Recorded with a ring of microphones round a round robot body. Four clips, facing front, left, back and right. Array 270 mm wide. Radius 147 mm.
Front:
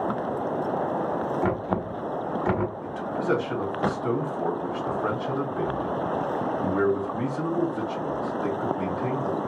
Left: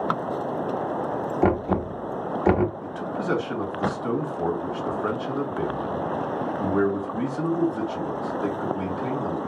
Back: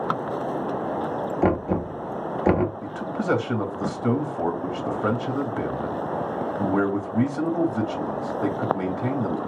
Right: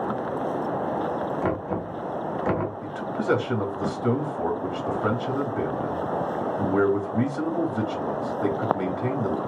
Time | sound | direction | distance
1.4 | knocking | 135° left | 0.9 m
2.8 | a man speaking | 165° right | 2.5 m